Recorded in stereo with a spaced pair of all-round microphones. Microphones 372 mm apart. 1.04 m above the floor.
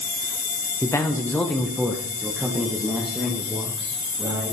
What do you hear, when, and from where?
0.8 s a man speaking: 10° left (ahead or behind), 0.6 m; by 4.5 s 5° right (ahead or behind), 1.8 m